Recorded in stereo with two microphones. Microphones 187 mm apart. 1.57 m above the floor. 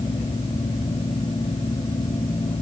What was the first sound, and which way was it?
Only background noise.